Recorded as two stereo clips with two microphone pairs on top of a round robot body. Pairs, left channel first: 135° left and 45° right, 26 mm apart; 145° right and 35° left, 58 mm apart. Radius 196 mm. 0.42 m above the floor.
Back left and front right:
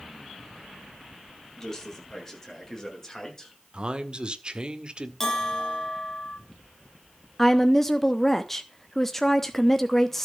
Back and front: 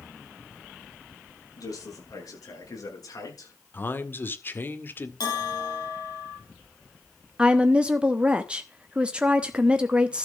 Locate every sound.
1.6 s a man speaking: 145° right, 9 m; by 3.6 s 150° right, 7.5 m
3.7 s a man speaking: 95° right, 1.9 m
5.2 s a bell: 145° right, 5 m
7.4 s a woman speaking: 75° left, 1.4 m